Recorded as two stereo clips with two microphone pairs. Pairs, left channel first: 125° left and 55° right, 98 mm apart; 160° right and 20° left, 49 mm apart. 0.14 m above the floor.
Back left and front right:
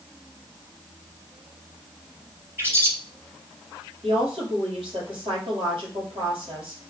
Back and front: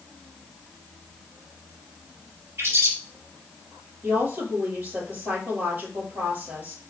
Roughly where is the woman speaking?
Ahead right.